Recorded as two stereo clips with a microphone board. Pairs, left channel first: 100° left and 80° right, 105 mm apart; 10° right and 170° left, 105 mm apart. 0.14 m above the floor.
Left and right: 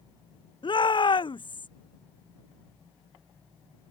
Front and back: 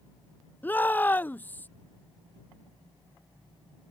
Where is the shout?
60° left.